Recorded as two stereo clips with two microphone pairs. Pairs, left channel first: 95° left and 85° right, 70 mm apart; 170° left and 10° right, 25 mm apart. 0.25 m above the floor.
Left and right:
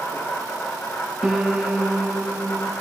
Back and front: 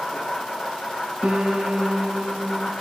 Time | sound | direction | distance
0.0 | an insect | 150° left | 5 m
1.2 | a piano | 5° right | 1.0 m